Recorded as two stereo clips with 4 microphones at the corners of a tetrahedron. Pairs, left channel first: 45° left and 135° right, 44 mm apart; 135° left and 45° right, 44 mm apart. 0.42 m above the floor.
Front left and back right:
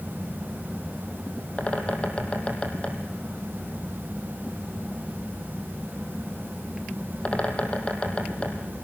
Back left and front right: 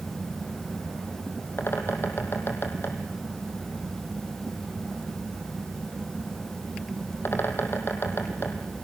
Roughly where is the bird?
Left.